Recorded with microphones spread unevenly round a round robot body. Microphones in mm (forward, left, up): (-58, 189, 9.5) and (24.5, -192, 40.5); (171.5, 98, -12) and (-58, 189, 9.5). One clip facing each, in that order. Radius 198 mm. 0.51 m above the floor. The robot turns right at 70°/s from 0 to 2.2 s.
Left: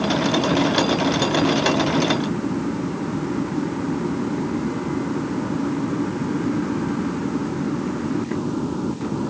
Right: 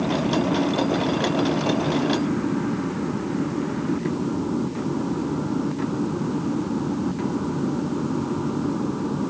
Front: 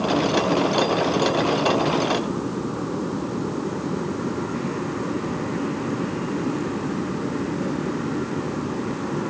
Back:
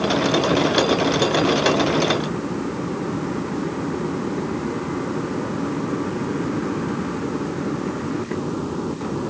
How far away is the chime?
I don't hear a chime.